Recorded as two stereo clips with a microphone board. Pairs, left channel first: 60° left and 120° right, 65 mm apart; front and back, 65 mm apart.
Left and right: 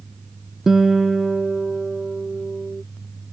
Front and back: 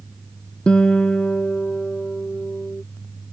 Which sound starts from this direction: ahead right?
A guitar, at 0.7 s.